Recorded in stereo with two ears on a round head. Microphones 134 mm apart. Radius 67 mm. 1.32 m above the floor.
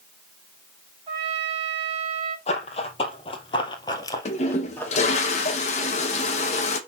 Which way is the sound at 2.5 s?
45° left (ahead or behind).